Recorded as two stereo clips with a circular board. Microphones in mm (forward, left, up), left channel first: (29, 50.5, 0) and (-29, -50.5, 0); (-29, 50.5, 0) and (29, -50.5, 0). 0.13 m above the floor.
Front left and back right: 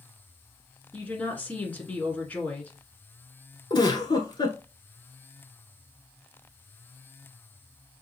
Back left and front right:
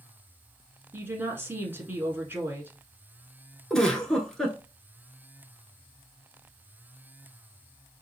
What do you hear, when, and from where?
0.9 s a woman speaking: 5° right, 1.3 m
3.7 s a giggle: 35° left, 1.0 m